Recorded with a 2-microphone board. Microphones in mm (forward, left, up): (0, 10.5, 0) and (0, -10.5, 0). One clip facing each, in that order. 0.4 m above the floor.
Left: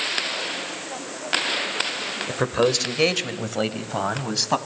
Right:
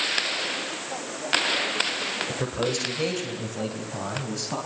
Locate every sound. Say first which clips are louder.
2.3 s a man speaking: left 6 dB; 40° left (ahead or behind), 1.8 m; by 4.6 s 55° left (ahead or behind), 3.5 m